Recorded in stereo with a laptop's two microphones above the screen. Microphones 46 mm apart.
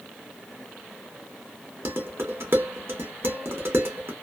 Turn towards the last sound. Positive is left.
turn(degrees=-65)  # may be behind; listen again after turning